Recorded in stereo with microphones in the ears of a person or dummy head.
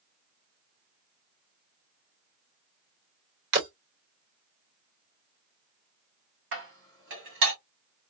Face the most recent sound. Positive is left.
turn(degrees=-60)  # may be behind; listen again after turning